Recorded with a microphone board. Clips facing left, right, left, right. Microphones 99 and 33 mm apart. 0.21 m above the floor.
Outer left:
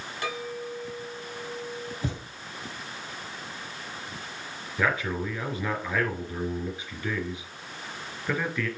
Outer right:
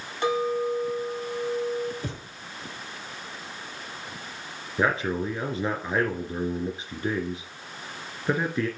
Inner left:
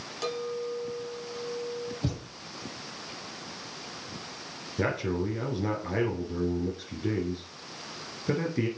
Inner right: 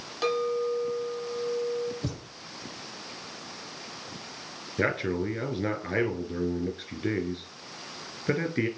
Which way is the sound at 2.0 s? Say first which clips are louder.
Outer left 2 dB, inner left 2 dB; 20° left (ahead or behind).